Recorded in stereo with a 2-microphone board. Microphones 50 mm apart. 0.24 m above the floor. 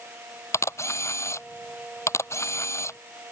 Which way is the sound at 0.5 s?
70° left (ahead or behind).